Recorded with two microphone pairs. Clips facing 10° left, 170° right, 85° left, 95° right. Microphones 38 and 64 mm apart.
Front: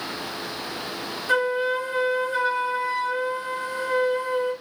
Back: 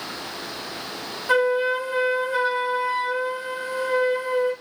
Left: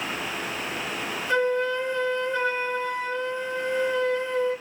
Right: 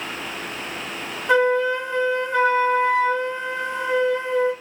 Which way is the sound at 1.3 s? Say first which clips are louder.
Back 2 dB, right 6 dB; 105° right.